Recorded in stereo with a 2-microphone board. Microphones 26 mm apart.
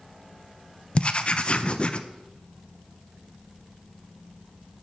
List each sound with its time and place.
0.9 s writing: 40° left (ahead or behind), 0.7 m